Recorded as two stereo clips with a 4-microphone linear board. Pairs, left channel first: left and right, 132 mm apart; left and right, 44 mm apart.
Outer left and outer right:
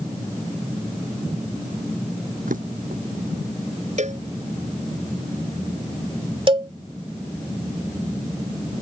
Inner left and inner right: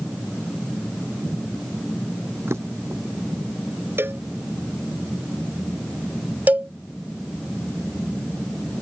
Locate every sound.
2.5 s a drawer: 85° right
4.0 s a cowbell: 60° right (ahead or behind)
6.5 s a cowbell: 40° right (ahead or behind)